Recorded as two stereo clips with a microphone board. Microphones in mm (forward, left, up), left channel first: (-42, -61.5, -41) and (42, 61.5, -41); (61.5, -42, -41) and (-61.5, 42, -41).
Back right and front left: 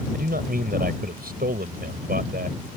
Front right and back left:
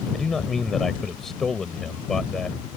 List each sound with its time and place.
0.1 s a man speaking: 55° left